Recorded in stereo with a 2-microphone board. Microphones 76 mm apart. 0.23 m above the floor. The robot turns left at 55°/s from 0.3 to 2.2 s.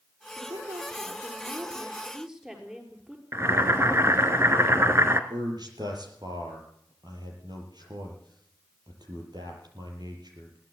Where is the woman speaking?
70° right, 5.5 m; by 3.2 s 170° right, 5.5 m.